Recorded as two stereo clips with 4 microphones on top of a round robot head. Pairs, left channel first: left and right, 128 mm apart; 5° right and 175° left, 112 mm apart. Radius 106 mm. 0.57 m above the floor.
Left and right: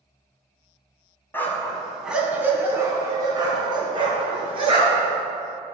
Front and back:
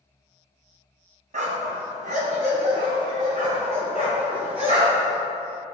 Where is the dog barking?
165° left, 1.8 m; by 5.1 s 135° right, 4 m.